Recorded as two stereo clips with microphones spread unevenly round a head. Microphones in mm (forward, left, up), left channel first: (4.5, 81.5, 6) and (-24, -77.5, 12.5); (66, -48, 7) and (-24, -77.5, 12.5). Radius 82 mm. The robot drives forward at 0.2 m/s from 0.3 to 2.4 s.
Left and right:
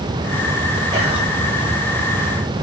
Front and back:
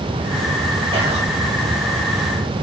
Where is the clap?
No clap in this recording.